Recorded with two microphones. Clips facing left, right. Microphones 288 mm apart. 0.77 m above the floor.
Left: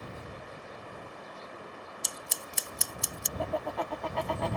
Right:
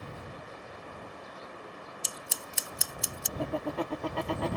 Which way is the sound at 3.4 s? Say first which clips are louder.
Right 2 dB; 40° right (ahead or behind).